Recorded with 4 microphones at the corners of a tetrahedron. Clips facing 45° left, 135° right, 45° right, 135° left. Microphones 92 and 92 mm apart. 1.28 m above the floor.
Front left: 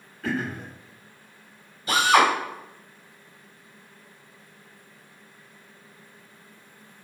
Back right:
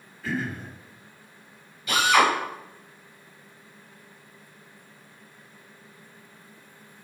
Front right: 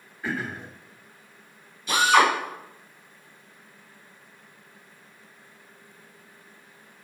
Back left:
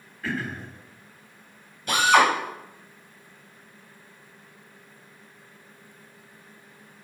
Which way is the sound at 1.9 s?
100° left.